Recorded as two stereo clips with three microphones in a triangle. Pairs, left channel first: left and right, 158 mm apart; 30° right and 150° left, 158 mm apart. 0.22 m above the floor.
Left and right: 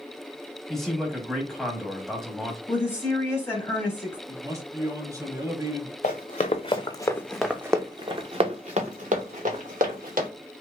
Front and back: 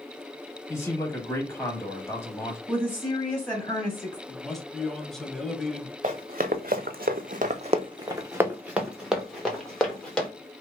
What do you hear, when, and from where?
0.7 s a man speaking: 5° left, 1.0 m
2.7 s a woman speaking: 35° left, 1.0 m
4.3 s a man speaking: 115° right, 1.0 m
6.0 s running footsteps: 120° left, 1.0 m; by 10.3 s 115° right, 2.0 m